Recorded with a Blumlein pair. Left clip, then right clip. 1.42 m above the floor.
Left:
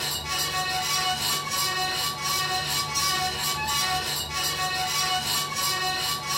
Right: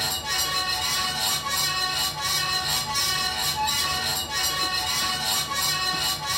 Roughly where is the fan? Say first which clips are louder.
Right 2 dB; ahead right.